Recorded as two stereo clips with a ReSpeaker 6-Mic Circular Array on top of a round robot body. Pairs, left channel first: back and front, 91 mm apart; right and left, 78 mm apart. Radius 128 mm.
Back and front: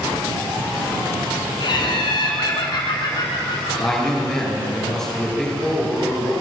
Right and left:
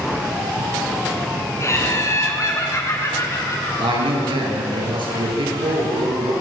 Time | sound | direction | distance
1.6 | laughter | 140° right | 5 m
3.8 | a man speaking | 95° left | 9.5 m